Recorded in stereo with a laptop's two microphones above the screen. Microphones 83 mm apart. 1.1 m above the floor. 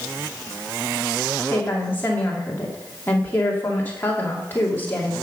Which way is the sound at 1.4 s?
25° left (ahead or behind).